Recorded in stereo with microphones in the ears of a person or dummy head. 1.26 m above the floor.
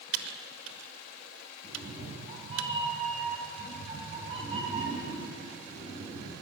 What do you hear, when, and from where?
0.1 s typing on a keyboard: 80° right, 1.1 m
1.6 s a cat meowing: 20° right (ahead or behind), 5.5 m